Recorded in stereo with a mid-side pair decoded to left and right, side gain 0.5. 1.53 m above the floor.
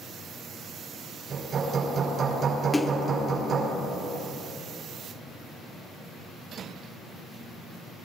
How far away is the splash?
About 0.8 m.